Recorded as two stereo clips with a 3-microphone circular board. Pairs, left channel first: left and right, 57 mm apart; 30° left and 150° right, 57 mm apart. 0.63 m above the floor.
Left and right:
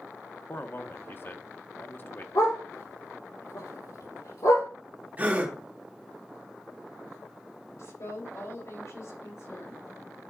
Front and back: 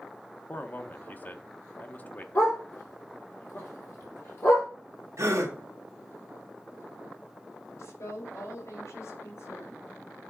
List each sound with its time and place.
0.5 s a man speaking: 70° left, 0.9 m
2.4 s a dog barking: 85° left, 5 m
5.2 s a gasp: 150° right, 1.9 m
7.8 s a woman speaking: 65° left, 3 m